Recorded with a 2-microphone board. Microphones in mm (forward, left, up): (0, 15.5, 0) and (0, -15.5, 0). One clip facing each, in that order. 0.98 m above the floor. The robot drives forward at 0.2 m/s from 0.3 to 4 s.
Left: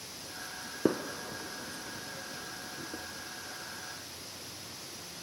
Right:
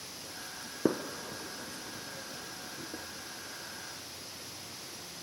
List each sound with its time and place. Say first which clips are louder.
0.8 s a gunshot: left 1 dB; 10° left (ahead or behind)